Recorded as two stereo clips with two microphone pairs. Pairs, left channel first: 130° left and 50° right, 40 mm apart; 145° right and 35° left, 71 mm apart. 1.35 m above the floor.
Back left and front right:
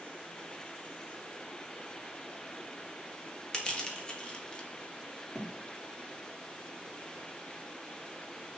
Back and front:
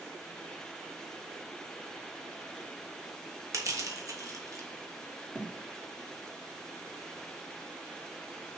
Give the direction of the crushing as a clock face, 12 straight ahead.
10 o'clock.